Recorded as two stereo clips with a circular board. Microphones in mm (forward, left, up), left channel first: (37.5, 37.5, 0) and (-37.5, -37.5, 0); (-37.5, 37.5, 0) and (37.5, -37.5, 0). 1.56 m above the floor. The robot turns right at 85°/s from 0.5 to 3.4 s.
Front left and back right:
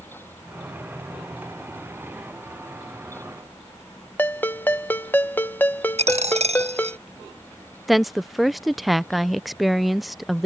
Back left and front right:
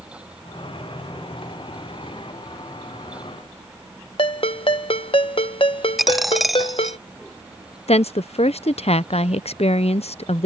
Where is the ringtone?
115° left.